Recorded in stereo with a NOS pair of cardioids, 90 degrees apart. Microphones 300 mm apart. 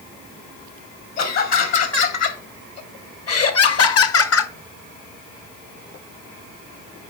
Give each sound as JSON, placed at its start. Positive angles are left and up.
{"t": 1.2, "sound": "laughter", "azimuth_deg": 60, "distance_m": 3.0}